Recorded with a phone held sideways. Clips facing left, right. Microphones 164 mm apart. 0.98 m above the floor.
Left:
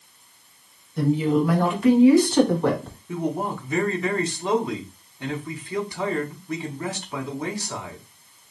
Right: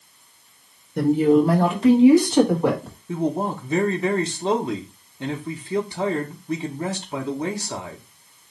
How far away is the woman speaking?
About 1.0 m.